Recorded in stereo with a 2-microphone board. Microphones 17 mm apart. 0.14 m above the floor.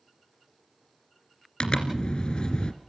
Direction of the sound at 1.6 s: 55° left (ahead or behind).